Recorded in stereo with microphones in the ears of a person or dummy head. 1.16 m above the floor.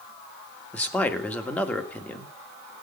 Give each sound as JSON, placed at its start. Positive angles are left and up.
{"t": 0.7, "sound": "a man speaking", "side_deg": 15, "distance_m": 1.6}